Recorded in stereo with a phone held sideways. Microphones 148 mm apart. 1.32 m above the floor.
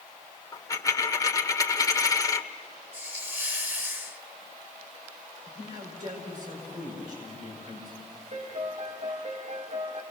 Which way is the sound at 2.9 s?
15° right (ahead or behind).